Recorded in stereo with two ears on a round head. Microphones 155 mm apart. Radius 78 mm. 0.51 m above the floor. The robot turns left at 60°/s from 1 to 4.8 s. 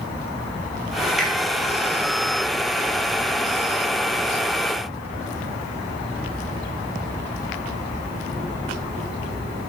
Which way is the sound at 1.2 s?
Centre (ahead or behind).